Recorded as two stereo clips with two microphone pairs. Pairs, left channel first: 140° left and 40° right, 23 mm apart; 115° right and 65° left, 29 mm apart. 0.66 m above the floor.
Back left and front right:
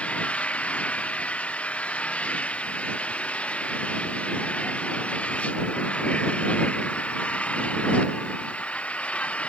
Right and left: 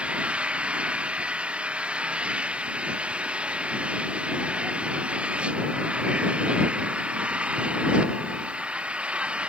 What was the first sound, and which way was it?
An engine running, 115° left.